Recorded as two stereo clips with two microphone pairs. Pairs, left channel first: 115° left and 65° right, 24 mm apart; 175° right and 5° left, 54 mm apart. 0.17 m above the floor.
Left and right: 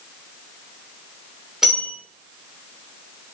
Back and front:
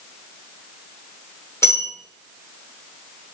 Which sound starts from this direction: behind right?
A bell, at 1.6 s.